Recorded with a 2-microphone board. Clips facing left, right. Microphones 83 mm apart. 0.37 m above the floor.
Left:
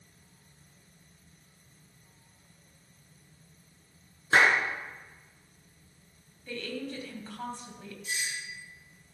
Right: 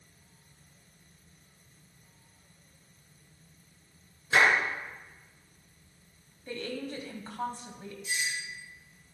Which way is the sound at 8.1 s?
60° left (ahead or behind).